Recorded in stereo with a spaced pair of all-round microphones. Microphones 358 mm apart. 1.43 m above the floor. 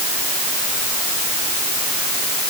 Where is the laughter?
I don't hear laughter.